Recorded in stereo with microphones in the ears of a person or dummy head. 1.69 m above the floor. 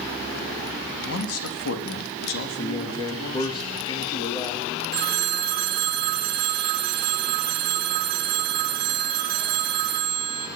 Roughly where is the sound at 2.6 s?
Left.